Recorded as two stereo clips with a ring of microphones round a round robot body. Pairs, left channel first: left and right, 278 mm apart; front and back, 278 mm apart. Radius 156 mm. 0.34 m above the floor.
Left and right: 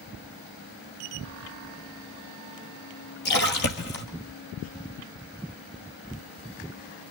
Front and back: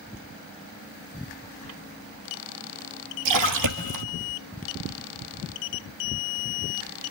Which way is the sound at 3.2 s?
150° left.